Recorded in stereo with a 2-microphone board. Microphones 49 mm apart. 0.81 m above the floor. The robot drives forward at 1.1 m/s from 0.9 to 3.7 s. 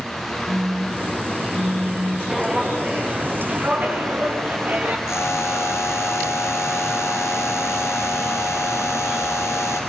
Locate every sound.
0.5 s a phone buzzing: 35° right (ahead or behind), 4.5 m; by 2.2 s 50° right (ahead or behind), 3.5 m
2.3 s footsteps: 15° right (ahead or behind), 4 m; by 5.0 s 40° right (ahead or behind), 4.5 m
5.1 s a buzzer: 70° left (ahead or behind), 3.5 m